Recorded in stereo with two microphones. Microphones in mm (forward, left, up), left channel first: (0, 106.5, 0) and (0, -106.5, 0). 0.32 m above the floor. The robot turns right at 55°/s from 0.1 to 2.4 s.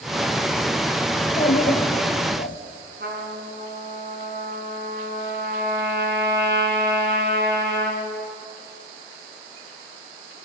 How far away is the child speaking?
About 1.4 m.